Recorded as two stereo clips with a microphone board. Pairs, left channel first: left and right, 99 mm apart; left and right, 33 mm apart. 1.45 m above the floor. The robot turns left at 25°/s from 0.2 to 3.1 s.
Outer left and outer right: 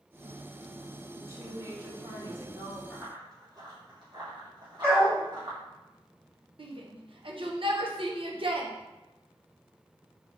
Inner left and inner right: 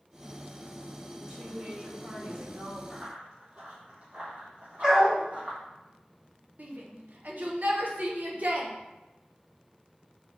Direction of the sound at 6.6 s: 60° right (ahead or behind).